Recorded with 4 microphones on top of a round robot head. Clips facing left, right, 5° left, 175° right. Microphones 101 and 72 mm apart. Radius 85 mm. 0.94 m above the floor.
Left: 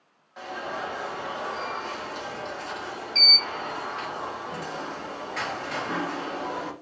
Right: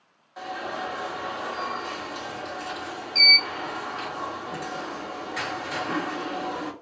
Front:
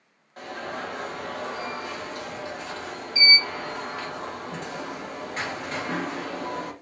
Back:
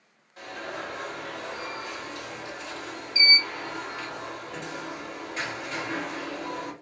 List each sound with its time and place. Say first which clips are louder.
0.4 s an alarm: right 1 dB, front 2 dB; 10° right, 1.6 m